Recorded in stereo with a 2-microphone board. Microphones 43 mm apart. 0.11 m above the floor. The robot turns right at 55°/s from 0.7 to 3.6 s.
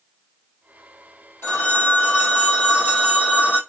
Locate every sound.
1.4 s a phone ringing: 95° left, 1.9 m; by 3.6 s 145° right, 1.9 m